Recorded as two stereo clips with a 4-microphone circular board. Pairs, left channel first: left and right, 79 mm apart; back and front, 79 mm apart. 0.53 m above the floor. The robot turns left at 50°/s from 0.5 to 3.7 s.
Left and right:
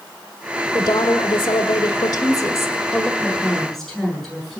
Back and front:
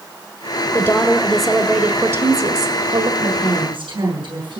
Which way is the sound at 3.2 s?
30° left.